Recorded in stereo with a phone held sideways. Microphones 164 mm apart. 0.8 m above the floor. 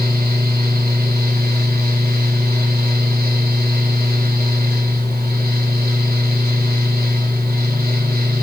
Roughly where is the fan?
Right.